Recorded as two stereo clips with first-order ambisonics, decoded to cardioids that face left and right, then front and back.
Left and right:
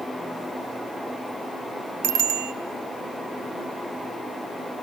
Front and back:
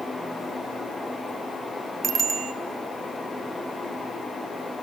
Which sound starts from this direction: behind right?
A bicycle bell, at 2.0 s.